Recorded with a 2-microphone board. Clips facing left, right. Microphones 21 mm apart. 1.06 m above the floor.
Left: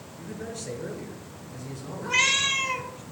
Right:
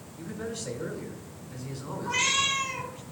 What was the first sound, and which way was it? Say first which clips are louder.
A man speaking: right 1 dB; 60° right (ahead or behind).